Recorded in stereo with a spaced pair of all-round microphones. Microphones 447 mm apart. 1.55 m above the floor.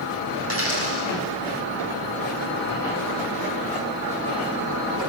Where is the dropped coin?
30° right (ahead or behind), 6.5 m.